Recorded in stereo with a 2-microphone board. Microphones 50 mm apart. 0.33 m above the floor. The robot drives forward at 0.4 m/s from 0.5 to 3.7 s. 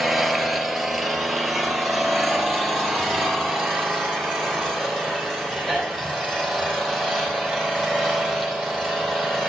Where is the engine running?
Centre (ahead or behind), 1.3 m.